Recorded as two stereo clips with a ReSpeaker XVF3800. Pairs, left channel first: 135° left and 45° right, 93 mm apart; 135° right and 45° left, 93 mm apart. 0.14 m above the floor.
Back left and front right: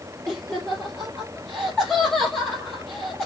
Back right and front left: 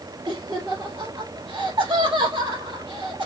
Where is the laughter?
60° left, 2.0 m.